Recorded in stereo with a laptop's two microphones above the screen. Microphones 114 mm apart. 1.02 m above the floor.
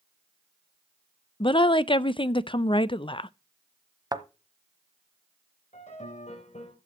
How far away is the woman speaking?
About 0.5 m.